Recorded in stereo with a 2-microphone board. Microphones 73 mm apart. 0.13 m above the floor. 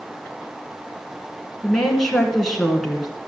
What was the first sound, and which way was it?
A woman speaking, 5° left (ahead or behind).